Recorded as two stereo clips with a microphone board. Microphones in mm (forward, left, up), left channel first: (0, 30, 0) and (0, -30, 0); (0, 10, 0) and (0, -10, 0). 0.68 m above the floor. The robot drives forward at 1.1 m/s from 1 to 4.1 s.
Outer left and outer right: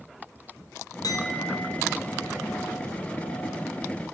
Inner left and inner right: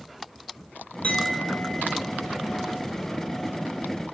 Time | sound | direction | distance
1.0 | a clink | 80° left | 5 m